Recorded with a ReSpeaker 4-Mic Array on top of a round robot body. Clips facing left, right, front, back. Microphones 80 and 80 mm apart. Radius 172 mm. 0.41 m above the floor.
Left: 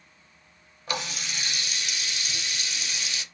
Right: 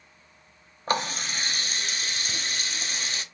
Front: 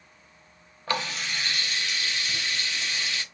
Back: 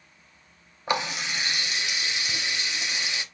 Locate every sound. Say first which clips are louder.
0.9 s a running tap: right 5 dB, back 2 dB; 115° right, 0.8 m